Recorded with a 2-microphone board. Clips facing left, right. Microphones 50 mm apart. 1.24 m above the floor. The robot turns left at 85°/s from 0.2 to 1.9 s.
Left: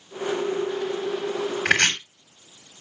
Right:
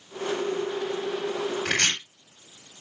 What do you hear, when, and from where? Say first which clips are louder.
1.6 s chopping: left 7 dB; 60° left (ahead or behind), 3.5 m; by 1.9 s 40° left (ahead or behind), 3.5 m